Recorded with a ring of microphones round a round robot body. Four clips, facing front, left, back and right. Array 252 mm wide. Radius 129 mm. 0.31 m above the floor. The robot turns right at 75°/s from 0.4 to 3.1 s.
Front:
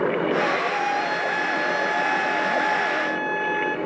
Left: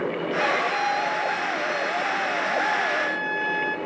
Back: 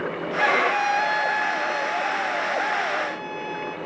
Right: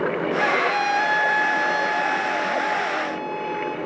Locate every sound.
0.4 s a violin: 160° right, 1.4 m; by 3.8 s 40° left, 1.4 m